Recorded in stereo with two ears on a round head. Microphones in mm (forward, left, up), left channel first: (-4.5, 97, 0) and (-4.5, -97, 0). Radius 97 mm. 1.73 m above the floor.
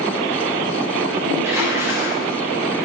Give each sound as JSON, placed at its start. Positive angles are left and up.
{"t": 1.4, "sound": "a splash", "side_deg": -10, "distance_m": 1.6}